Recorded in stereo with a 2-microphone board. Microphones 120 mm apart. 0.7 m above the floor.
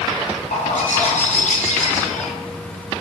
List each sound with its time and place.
0.5 s a bird: 85° left, 0.6 m